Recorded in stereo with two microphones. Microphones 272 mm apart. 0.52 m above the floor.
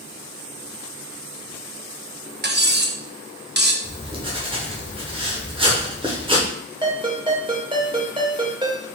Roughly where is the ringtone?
Centre.